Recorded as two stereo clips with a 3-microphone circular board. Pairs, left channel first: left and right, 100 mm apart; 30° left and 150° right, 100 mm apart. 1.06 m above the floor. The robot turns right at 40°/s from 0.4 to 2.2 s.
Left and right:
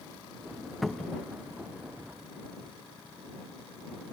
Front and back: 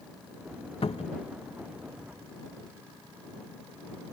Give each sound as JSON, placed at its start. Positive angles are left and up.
{"t": 0.8, "sound": "a cupboard door", "azimuth_deg": 0}